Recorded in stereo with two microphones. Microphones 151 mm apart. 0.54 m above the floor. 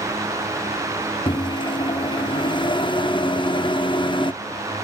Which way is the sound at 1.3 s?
30° left (ahead or behind).